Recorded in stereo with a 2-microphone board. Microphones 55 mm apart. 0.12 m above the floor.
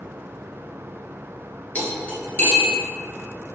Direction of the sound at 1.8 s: 30° left (ahead or behind).